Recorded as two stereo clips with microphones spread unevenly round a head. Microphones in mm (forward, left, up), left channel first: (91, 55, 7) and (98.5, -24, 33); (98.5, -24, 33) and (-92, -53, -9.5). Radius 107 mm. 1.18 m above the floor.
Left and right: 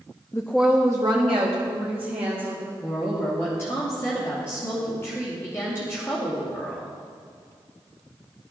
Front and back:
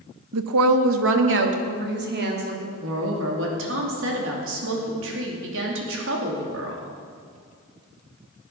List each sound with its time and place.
0.3 s a woman speaking: 170° left, 0.7 m; by 2.7 s 135° right, 2.5 m
2.8 s a woman speaking: 170° left, 2.5 m